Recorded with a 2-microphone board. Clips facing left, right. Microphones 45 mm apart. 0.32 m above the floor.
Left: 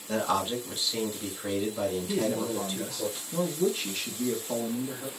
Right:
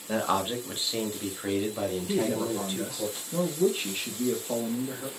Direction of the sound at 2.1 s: 20° right (ahead or behind).